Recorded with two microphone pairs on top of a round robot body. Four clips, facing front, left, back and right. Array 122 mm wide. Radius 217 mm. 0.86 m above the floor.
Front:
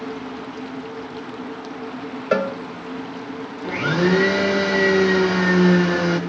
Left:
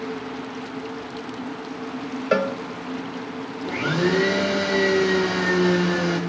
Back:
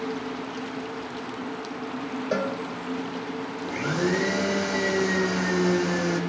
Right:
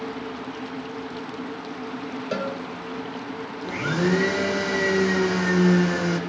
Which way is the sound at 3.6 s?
15° left.